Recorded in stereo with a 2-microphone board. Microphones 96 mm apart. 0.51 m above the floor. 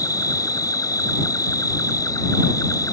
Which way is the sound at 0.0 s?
35° left (ahead or behind).